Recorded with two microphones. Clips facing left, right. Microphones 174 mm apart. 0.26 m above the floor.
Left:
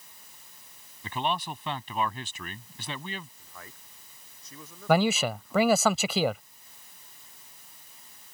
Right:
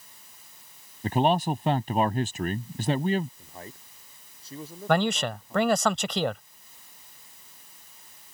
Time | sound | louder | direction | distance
1.0 | a man speaking | right 8 dB | 45° right (ahead or behind) | ?
3.4 | a man speaking | right 6 dB | 30° right (ahead or behind) | ?
4.9 | a man speaking | left 1 dB | 5° left (ahead or behind) | ?